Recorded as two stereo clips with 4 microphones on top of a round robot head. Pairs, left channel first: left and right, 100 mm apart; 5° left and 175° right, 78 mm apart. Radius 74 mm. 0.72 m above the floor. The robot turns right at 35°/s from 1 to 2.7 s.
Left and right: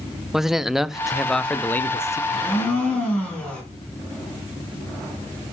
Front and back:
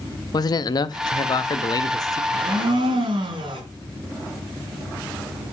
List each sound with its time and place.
0.3 s a man speaking: 5° right, 0.6 m; by 2.2 s 35° left, 0.6 m
2.3 s a blender: 155° left, 2.5 m; by 3.6 s 170° left, 2.5 m